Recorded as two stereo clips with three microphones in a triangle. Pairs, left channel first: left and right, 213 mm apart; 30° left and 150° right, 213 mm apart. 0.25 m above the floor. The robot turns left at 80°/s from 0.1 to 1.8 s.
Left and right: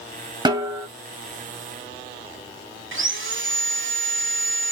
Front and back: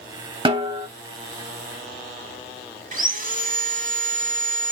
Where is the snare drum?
130° right, 0.5 m; by 0.9 s 165° right, 0.5 m.